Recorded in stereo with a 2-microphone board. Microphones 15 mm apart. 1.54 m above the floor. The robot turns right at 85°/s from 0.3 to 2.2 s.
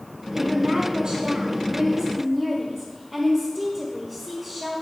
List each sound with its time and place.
0.3 s a woman speaking: 175° right, 1.2 m; by 4.8 s 15° right, 1.2 m